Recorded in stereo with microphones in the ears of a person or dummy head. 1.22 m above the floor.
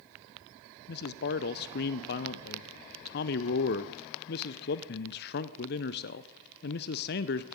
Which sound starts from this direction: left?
A man speaking, at 0.9 s.